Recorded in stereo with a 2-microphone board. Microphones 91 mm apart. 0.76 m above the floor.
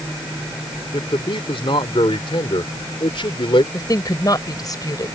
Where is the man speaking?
70° left (ahead or behind).